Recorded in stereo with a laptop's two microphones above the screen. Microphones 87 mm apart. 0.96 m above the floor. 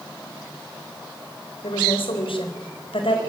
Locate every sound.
1.6 s a woman speaking: 85° left, 3.5 m; by 3.2 s 80° left, 4.5 m